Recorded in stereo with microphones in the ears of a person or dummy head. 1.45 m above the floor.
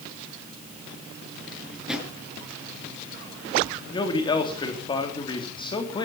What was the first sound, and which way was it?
A drawer, centre (ahead or behind).